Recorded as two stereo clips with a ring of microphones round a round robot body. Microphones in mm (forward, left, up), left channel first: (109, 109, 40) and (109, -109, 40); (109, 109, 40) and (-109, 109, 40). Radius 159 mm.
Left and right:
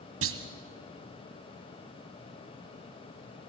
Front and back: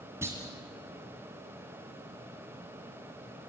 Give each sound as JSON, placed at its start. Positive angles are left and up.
{"t": 0.2, "sound": "a clunk", "azimuth_deg": -100, "distance_m": 1.4}